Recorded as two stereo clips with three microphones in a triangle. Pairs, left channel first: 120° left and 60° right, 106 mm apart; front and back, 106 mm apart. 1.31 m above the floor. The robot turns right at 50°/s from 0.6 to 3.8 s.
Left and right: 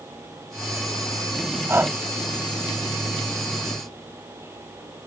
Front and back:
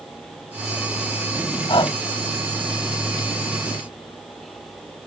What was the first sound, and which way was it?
Breathing, straight ahead.